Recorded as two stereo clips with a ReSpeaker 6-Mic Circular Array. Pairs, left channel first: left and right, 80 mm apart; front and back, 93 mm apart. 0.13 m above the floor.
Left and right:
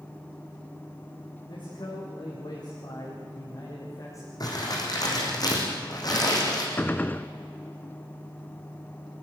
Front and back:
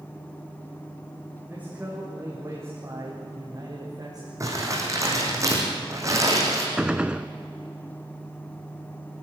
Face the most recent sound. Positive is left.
turn(degrees=115)